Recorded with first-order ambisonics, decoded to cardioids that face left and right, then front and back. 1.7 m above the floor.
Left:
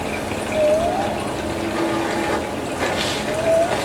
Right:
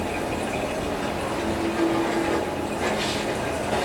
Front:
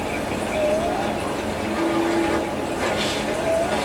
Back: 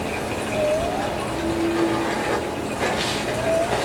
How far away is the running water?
About 1.2 m.